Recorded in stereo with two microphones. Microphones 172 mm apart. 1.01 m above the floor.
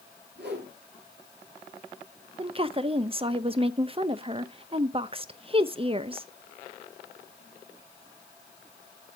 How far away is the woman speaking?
About 0.7 m.